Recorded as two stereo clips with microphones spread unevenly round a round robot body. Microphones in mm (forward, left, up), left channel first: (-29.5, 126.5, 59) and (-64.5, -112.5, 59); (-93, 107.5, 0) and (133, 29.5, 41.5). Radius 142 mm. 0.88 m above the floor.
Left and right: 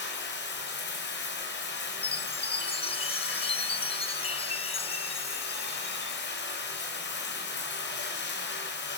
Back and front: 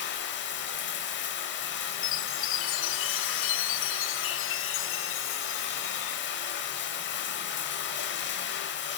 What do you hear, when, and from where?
0.0 s running water: 125° left, 4 m
2.0 s a chime: 145° left, 0.9 m